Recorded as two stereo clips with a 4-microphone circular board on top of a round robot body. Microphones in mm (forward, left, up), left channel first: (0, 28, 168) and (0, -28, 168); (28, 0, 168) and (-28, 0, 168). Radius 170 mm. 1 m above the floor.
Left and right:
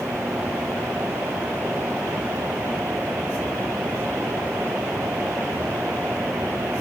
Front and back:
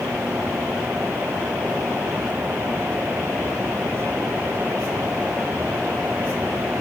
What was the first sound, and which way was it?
Only background noise.